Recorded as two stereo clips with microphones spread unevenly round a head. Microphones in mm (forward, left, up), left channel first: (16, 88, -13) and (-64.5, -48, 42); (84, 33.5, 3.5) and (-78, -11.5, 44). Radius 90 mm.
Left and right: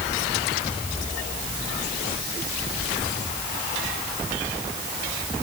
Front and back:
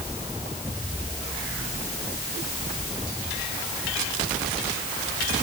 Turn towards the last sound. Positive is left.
No sound to turn to.